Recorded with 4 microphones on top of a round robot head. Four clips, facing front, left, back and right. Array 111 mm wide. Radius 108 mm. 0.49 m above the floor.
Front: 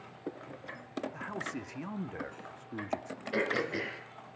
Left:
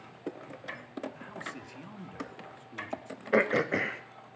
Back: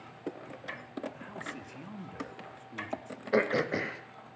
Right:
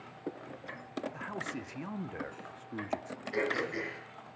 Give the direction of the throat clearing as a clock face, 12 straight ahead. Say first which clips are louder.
Left 7 dB, back 5 dB; 8 o'clock.